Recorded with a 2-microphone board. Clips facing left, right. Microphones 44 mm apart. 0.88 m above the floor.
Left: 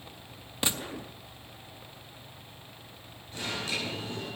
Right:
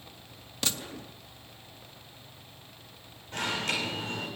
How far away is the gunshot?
About 0.6 m.